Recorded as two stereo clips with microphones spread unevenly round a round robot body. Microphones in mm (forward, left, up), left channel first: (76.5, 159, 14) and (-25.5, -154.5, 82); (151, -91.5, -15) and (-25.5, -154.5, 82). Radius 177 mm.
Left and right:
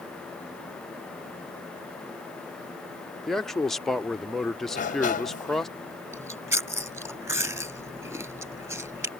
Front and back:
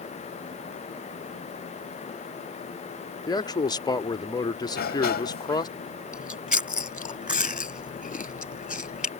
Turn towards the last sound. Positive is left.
turn(degrees=-25)